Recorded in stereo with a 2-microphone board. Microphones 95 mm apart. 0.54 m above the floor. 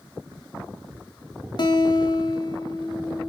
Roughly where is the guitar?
Left.